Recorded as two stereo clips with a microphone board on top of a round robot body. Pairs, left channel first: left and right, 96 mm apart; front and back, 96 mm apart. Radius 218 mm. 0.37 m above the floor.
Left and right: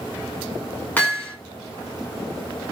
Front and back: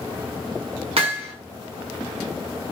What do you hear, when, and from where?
1.0 s hammering: 160° left, 1.7 m